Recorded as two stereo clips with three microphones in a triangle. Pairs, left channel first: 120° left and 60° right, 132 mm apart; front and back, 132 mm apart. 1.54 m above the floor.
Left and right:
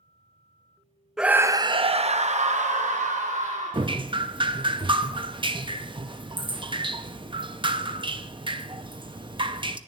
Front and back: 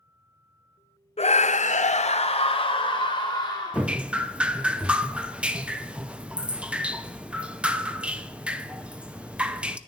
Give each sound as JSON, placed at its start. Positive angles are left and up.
{"t": 1.2, "sound": "a scream", "azimuth_deg": 25, "distance_m": 0.6}
{"t": 3.7, "sound": "dripping", "azimuth_deg": -100, "distance_m": 0.6}